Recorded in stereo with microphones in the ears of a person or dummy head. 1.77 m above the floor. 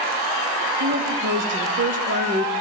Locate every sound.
0.8 s a woman speaking: 45° right (ahead or behind), 1.0 m